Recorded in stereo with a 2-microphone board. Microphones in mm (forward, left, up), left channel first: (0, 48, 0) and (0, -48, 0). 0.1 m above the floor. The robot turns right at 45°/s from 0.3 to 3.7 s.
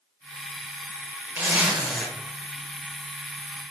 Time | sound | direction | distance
1.4 | a zipper | 30° right | 1.1 m